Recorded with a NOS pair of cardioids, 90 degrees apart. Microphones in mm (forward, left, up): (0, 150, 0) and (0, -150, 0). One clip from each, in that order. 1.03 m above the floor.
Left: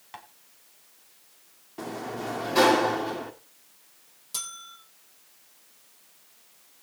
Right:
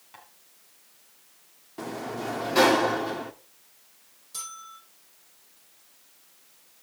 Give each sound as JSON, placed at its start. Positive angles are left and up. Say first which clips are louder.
{"t": 0.1, "sound": "tapping", "louder": "left 6 dB", "azimuth_deg": 50, "distance_m": 2.5}
{"t": 1.8, "sound": "a sliding door", "louder": "right 1 dB", "azimuth_deg": -5, "distance_m": 1.4}
{"t": 4.3, "sound": "a bell", "louder": "left 2 dB", "azimuth_deg": 55, "distance_m": 6.0}